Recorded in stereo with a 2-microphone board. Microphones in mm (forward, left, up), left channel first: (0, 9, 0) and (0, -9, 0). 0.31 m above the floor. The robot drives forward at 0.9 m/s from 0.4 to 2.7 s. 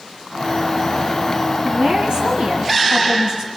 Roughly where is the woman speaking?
Right.